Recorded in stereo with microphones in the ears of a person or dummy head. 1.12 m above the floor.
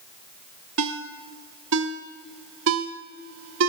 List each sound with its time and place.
0.8 s a ringtone: 75° right (ahead or behind), 1.2 m